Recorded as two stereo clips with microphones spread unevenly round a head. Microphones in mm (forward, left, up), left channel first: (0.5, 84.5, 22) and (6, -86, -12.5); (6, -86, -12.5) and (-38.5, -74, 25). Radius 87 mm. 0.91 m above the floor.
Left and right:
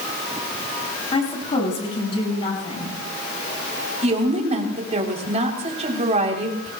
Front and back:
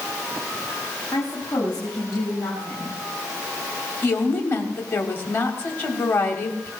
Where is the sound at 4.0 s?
40° right, 3 m.